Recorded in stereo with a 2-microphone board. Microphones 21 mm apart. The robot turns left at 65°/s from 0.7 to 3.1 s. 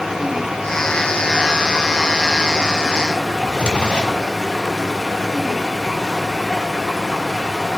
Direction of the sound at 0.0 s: 45° right.